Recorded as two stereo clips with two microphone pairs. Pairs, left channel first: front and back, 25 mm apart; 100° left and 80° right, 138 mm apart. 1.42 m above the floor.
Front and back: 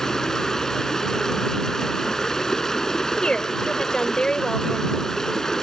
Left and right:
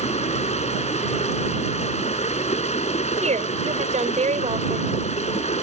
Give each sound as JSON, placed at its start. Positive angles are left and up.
{"t": 0.0, "sound": "running water", "azimuth_deg": 65}
{"t": 3.2, "sound": "a woman speaking", "azimuth_deg": -50}